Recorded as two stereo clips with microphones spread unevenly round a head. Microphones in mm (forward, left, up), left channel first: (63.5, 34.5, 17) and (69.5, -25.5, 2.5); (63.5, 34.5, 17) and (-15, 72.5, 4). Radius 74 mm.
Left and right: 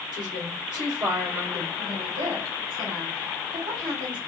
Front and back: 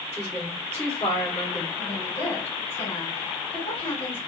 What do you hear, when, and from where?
0.1 s a woman speaking: 100° right, 2.5 m
1.8 s a woman speaking: 95° right, 3 m